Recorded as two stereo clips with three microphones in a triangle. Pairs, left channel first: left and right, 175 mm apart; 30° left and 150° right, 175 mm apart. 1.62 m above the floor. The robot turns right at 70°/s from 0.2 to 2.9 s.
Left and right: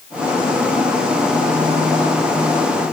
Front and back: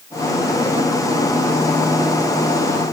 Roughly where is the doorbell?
No doorbell in this recording.